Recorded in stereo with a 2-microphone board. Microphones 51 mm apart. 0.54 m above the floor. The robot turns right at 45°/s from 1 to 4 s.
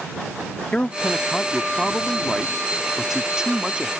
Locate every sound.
0.7 s a man speaking: 20° left (ahead or behind); by 3.9 s 20° right (ahead or behind)